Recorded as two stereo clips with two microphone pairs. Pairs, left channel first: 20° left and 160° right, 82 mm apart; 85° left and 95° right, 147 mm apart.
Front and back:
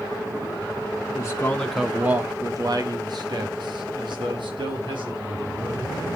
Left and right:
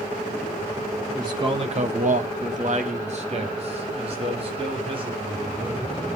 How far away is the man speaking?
About 1.4 m.